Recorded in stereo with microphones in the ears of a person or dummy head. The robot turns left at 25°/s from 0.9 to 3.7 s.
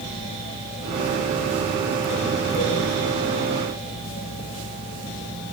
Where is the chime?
I don't hear a chime.